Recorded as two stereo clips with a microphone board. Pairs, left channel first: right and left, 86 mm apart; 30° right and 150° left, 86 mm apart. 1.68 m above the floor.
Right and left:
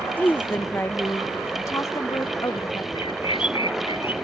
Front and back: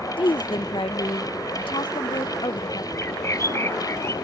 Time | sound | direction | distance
0.2 | a woman speaking | 20° right | ?
3.0 | a bird | 90° right | ?